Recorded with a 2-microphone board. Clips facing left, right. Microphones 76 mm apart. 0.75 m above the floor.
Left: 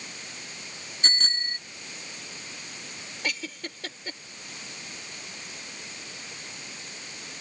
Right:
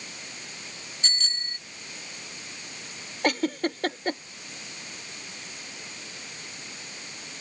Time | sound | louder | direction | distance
1.0 | a bicycle bell | left 5 dB | 45° left (ahead or behind) | ?
3.2 | a giggle | right 10 dB | 55° right (ahead or behind) | ?